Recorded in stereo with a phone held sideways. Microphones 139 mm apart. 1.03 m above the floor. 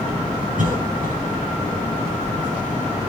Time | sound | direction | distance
0.6 | a cough | 75° right (ahead or behind) | 7.5 m